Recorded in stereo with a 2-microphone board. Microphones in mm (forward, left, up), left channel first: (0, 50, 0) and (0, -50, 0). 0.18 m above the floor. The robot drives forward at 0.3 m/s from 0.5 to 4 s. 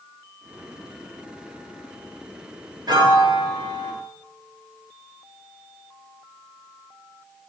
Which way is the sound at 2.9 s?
45° right (ahead or behind).